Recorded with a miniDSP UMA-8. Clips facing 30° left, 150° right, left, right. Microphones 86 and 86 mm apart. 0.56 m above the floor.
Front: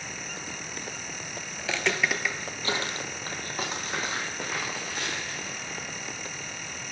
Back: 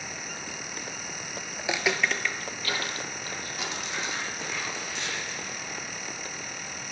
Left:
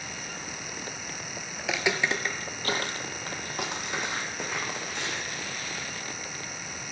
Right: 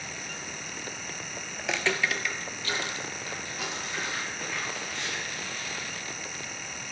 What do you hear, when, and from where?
1.6 s footsteps: 170° right, 0.5 m; by 5.5 s 70° left, 2.5 m